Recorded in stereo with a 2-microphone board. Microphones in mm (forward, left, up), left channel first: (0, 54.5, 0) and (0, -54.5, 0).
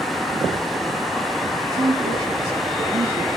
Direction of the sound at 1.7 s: 55° right (ahead or behind).